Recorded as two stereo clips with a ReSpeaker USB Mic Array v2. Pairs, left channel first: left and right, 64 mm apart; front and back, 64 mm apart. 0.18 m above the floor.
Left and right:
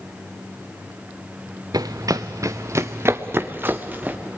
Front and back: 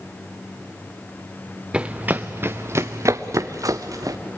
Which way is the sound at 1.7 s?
105° right.